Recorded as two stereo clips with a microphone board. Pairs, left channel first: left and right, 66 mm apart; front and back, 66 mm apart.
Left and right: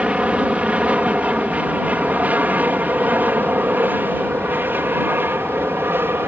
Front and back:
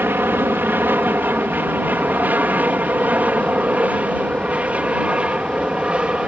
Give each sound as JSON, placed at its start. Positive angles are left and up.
{"t": 0.0, "sound": "an aircraft", "azimuth_deg": -150}